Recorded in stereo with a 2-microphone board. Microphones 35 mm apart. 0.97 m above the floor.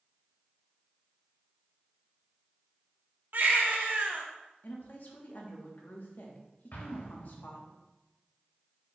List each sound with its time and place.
3.3 s a baby crying: 60° right (ahead or behind), 0.7 m
4.6 s a woman speaking: 55° left (ahead or behind), 1.0 m
6.7 s an explosion: 75° left (ahead or behind), 1.0 m